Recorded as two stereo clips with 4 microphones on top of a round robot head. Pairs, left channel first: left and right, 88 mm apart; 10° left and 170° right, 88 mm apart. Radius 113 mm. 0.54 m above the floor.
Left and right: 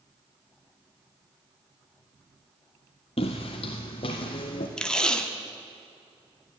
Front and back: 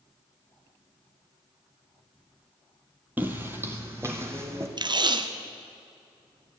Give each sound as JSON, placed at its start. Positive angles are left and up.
{"t": 3.2, "sound": "footsteps", "azimuth_deg": 120, "distance_m": 0.8}
{"t": 4.8, "sound": "tape being pulled", "azimuth_deg": 170, "distance_m": 1.0}